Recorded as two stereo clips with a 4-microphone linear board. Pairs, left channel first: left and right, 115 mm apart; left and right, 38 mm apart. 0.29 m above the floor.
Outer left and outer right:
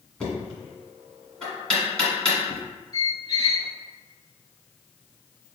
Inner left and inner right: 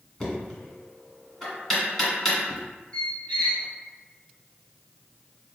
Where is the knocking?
10° left (ahead or behind), 1.7 m.